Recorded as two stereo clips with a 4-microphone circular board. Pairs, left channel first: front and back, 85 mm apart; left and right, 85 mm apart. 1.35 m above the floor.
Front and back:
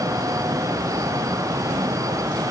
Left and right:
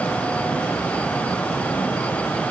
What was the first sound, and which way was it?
Only background noise.